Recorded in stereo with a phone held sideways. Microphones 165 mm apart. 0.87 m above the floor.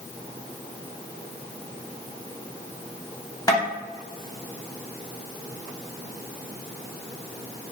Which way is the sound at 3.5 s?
20° left (ahead or behind).